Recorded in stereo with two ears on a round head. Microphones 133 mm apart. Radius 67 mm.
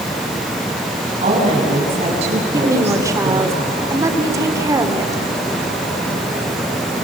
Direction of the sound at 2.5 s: 20° right (ahead or behind).